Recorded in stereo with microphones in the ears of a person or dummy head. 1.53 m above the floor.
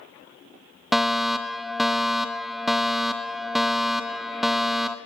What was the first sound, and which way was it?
A fire alarm, centre (ahead or behind).